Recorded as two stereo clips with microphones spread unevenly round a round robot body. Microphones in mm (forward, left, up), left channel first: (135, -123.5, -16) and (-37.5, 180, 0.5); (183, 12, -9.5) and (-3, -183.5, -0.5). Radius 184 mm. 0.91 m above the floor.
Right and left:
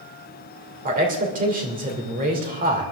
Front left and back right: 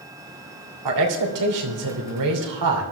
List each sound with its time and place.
0.8 s a man speaking: 170° right, 2.5 m